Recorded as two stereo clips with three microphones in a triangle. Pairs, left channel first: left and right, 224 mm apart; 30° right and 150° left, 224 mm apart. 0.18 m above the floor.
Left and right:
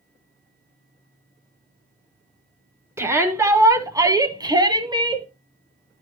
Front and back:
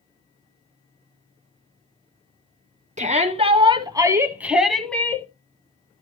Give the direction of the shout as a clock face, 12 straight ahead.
5 o'clock.